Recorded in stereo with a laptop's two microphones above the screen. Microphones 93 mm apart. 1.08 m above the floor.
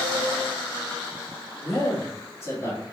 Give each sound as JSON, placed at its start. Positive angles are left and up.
{"t": 1.6, "sound": "a man speaking", "side_deg": 30, "distance_m": 2.5}